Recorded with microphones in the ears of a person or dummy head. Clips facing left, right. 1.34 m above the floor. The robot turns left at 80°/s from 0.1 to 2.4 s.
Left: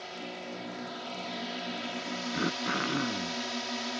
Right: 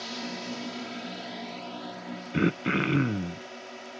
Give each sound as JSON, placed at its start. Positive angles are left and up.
{"t": 0.0, "sound": "a drone", "azimuth_deg": -75}
{"t": 2.3, "sound": "throat clearing", "side_deg": -35}